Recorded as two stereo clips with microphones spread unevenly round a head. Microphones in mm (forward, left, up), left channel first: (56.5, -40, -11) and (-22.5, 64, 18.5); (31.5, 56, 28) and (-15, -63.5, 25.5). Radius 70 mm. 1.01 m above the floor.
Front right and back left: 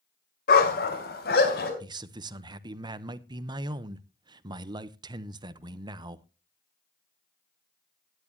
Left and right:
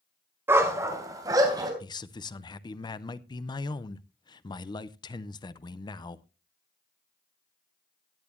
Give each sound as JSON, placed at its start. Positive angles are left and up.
{"t": 0.5, "sound": "a dog barking", "azimuth_deg": -40, "distance_m": 1.9}
{"t": 1.8, "sound": "a man speaking", "azimuth_deg": 75, "distance_m": 0.7}